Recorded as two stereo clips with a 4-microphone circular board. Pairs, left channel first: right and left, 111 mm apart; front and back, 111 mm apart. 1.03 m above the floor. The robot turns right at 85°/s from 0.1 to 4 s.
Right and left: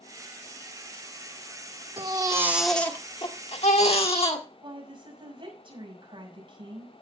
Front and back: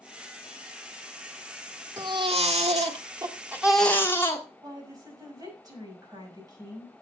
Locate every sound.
2.0 s a baby crying: 120° left, 1.5 m; by 4.5 s 65° right, 1.5 m
4.6 s a woman speaking: 125° left, 6 m